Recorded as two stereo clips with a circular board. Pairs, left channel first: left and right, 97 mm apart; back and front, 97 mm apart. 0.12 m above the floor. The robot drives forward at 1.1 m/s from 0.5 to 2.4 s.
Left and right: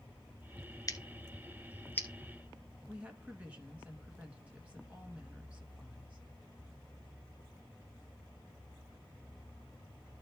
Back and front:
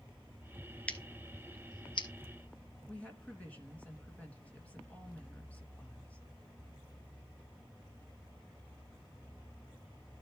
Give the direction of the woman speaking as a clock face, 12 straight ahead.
5 o'clock.